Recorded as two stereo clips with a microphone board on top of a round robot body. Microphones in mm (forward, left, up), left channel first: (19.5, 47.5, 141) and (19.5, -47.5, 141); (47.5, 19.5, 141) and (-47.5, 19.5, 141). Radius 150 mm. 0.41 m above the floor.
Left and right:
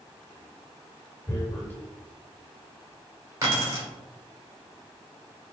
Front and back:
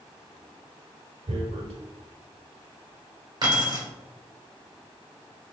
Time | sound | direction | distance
1.3 | tearing paper | 160° left | 0.5 m
3.4 | keys jangling | 145° right | 1.8 m